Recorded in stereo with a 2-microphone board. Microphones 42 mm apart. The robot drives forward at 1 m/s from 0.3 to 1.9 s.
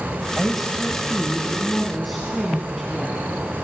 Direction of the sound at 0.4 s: Centre (ahead or behind).